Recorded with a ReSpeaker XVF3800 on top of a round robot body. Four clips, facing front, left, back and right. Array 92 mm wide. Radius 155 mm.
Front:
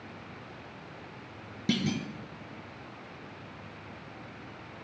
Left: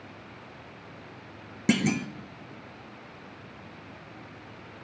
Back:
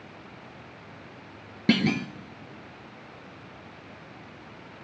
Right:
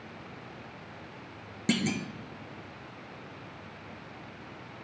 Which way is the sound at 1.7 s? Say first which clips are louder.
Left 4 dB, back 7 dB; 150° left.